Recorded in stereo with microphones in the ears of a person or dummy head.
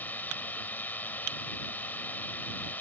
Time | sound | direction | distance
0.0 | a drone | 10° left (ahead or behind) | ?